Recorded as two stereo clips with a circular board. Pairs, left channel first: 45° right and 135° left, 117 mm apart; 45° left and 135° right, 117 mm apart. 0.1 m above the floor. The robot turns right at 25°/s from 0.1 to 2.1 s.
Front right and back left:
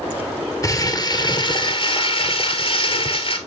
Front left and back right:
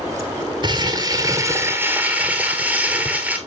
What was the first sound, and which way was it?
Crumpling, 100° right.